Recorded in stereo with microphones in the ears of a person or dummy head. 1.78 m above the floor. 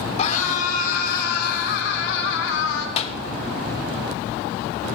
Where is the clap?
35° left (ahead or behind), 1.6 m.